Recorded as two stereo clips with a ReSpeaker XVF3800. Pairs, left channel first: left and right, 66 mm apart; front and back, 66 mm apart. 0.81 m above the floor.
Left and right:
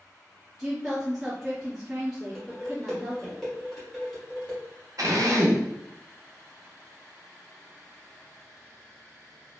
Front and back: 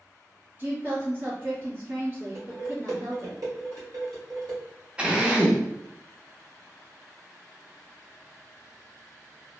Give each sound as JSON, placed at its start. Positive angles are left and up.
{"t": 0.6, "sound": "a woman speaking", "azimuth_deg": -160, "distance_m": 0.9}
{"t": 2.4, "sound": "dishes clattering", "azimuth_deg": 175, "distance_m": 1.5}
{"t": 5.0, "sound": "a drill", "azimuth_deg": -105, "distance_m": 0.6}